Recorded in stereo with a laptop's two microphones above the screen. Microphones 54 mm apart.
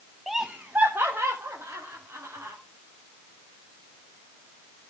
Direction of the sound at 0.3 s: Centre (ahead or behind).